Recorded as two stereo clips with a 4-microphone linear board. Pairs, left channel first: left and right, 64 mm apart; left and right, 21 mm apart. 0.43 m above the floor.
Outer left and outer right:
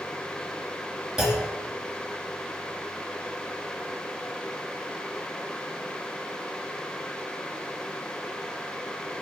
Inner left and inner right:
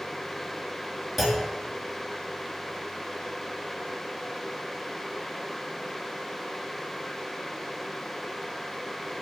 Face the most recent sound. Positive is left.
turn(degrees=-10)  # may be behind; listen again after turning